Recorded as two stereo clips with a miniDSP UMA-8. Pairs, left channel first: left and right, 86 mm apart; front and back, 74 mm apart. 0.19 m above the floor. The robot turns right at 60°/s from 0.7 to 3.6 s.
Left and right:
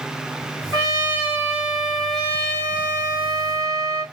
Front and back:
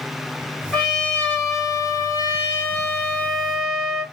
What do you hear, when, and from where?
0.7 s a trumpet: 80° right, 1.7 m; by 4.0 s 95° left, 1.7 m